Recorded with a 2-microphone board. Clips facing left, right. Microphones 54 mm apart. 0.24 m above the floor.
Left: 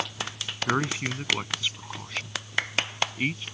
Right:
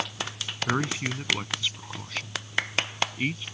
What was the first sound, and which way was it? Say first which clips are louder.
A man speaking: left 1 dB; 10° left (ahead or behind).